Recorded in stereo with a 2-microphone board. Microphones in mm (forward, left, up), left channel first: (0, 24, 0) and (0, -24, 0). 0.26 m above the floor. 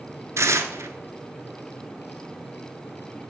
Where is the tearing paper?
75° right (ahead or behind), 0.7 m.